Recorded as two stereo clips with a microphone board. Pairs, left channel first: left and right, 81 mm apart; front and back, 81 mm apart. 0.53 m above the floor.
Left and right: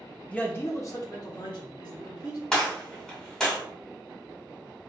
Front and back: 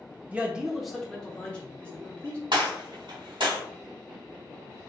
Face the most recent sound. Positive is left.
turn(degrees=170)